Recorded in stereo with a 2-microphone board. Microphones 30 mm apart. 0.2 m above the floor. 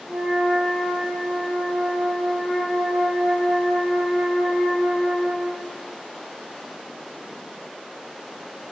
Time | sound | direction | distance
0.1 | a flute | 10° right (ahead or behind) | 0.9 m